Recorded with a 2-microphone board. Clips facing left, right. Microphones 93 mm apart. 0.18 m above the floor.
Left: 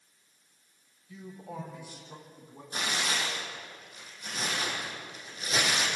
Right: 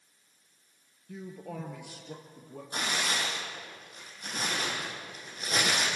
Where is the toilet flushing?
I don't hear a toilet flushing.